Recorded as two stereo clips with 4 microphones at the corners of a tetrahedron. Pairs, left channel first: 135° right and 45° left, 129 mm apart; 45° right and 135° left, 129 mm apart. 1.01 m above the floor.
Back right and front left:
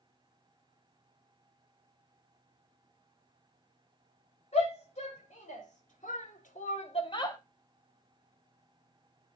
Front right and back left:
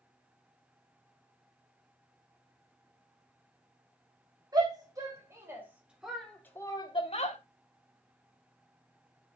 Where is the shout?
165° right, 4 m; by 7.4 s 75° right, 1.8 m.